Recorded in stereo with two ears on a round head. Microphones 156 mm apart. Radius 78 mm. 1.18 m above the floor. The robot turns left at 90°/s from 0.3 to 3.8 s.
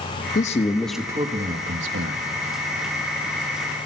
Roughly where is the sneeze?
No sneeze in this recording.